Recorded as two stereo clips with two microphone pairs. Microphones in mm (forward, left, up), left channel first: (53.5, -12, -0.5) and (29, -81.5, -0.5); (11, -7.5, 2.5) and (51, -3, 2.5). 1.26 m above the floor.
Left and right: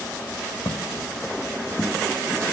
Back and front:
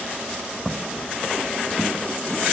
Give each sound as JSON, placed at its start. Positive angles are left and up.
{"t": 0.7, "sound": "footsteps", "azimuth_deg": 95, "distance_m": 3.0}